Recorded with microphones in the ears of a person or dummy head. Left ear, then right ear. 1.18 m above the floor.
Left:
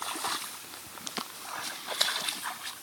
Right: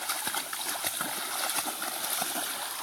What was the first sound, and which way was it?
Only background noise.